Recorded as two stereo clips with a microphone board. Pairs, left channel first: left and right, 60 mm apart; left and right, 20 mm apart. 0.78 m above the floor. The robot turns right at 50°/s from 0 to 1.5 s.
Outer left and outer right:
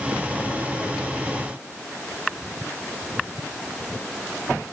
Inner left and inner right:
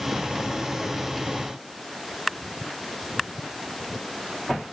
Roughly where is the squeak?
I don't hear a squeak.